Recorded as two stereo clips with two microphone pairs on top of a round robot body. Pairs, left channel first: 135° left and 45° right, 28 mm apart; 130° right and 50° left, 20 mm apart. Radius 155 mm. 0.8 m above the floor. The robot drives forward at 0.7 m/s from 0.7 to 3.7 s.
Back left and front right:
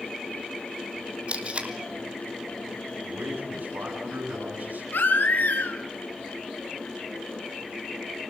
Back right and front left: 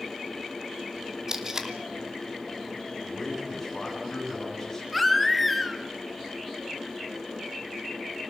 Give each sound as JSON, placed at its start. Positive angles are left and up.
{"t": 1.3, "sound": "tape being pulled", "azimuth_deg": 0, "distance_m": 3.5}
{"t": 3.0, "sound": "a man speaking", "azimuth_deg": -40, "distance_m": 8.0}
{"t": 4.9, "sound": "a baby crying", "azimuth_deg": 145, "distance_m": 3.0}